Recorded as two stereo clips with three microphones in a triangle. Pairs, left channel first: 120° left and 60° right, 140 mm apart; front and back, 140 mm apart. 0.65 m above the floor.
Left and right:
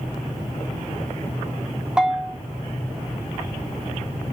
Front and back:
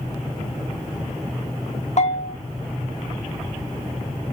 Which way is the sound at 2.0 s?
20° left.